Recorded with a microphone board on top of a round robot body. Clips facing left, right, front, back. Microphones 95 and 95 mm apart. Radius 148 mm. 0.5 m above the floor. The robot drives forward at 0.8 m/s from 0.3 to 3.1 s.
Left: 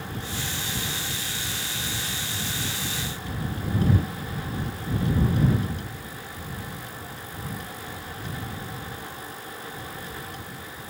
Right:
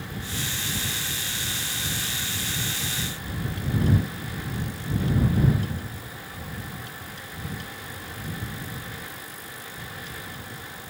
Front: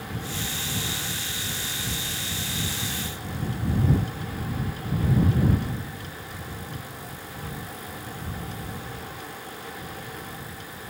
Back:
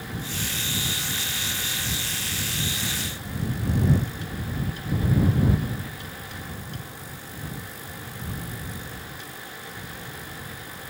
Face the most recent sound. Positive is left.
No sound to turn to.